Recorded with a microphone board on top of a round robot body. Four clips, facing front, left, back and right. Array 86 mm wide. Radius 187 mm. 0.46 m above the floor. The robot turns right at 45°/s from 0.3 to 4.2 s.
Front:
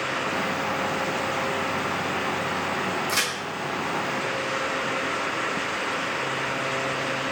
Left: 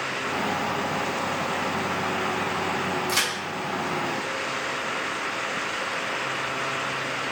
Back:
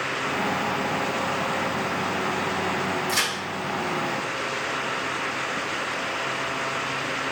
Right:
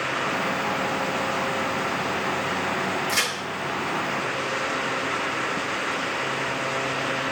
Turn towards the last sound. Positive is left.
turn(degrees=135)